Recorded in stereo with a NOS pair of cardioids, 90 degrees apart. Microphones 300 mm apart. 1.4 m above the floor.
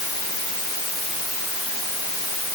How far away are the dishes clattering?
No dishes clattering in this recording.